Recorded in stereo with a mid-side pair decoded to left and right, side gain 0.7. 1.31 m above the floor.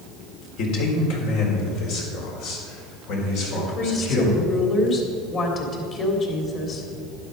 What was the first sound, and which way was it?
A man speaking, 65° left.